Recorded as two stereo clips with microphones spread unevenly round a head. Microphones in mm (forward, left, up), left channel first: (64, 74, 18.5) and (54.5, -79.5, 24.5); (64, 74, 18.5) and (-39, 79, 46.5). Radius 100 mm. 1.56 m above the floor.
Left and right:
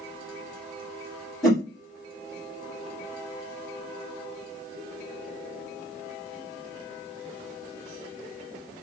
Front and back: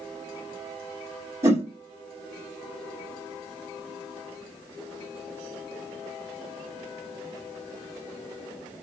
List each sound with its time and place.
1.4 s a whoosh: straight behind, 1.4 m